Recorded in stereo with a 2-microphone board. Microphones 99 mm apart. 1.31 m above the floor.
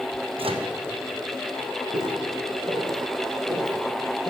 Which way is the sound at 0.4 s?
70° right (ahead or behind).